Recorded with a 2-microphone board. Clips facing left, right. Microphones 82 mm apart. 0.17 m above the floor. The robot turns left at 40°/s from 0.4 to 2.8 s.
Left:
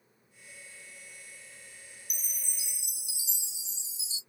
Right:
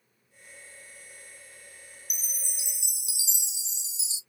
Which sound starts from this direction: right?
A chime, at 2.1 s.